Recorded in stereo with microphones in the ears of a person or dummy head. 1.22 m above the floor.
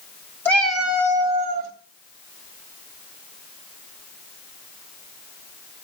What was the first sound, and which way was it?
A cat meowing, 10° left (ahead or behind).